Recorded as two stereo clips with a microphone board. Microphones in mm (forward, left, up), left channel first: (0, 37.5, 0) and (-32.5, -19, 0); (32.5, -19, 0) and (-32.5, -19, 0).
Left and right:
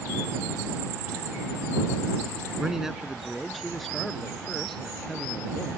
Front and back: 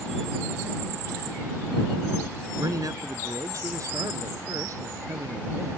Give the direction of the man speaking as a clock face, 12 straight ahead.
7 o'clock.